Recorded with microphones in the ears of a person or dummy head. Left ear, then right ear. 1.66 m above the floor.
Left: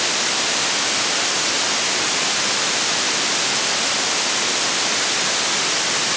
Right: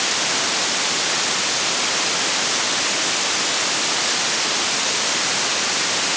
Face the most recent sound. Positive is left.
No sound to turn to.